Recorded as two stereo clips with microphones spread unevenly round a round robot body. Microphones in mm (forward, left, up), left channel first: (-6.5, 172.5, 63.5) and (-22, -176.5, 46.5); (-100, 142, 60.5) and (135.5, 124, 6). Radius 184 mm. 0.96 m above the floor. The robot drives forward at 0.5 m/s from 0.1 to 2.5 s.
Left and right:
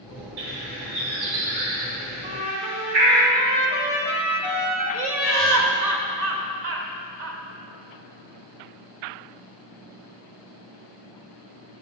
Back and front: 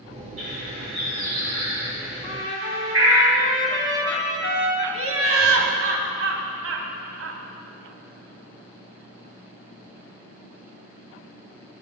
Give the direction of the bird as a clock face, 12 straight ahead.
3 o'clock.